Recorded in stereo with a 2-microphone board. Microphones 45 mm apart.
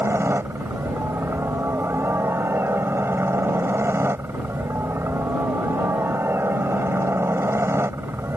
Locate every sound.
0.0 s a helicopter: 65° right (ahead or behind)